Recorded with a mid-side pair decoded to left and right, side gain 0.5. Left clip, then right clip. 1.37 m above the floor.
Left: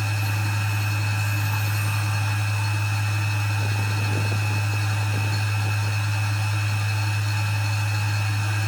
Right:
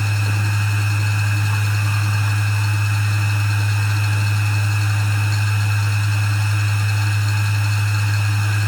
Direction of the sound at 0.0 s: 50° right.